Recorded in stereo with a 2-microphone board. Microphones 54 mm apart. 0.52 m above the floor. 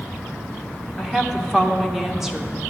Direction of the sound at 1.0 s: 5° right (ahead or behind).